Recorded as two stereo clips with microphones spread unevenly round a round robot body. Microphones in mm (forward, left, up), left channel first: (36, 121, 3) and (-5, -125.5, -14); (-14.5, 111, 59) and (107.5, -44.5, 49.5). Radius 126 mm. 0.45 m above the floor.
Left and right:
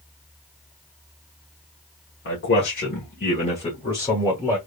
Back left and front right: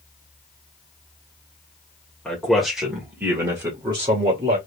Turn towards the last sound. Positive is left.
turn(degrees=0)